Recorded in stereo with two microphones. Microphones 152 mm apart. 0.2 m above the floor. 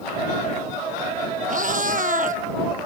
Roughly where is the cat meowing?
Right.